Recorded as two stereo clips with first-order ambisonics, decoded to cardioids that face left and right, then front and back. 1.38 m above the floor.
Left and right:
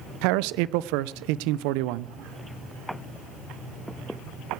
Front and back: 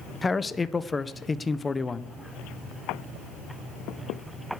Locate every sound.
0.2 s a man speaking: 80° right, 0.6 m